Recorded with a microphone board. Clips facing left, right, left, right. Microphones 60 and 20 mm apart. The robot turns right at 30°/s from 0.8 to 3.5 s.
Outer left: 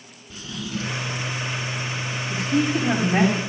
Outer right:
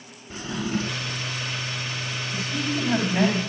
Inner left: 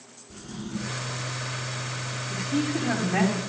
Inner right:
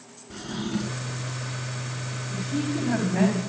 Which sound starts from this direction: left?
A woman speaking, at 2.3 s.